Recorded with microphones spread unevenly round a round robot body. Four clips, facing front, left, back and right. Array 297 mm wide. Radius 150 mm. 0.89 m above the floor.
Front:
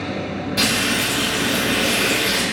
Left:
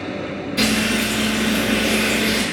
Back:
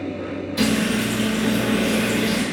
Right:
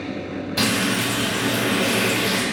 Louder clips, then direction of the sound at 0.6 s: Left 3 dB, back 3 dB; 60° right.